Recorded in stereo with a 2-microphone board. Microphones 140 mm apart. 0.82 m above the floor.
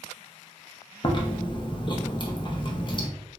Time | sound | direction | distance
1.0 | chewing | 35° left (ahead or behind) | 0.5 m